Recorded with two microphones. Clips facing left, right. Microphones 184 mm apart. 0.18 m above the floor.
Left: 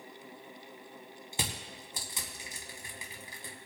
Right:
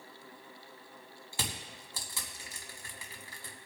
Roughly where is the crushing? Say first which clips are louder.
Left 2 dB; centre.